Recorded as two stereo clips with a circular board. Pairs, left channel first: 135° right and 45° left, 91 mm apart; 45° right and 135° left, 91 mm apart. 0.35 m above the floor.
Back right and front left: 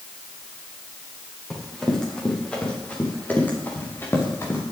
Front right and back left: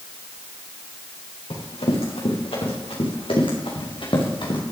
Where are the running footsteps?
50° right, 5 m; by 4.6 s 75° right, 4 m.